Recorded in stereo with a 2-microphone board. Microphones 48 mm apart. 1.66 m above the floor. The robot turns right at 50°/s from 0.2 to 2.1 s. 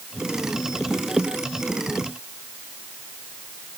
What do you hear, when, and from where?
Only background noise.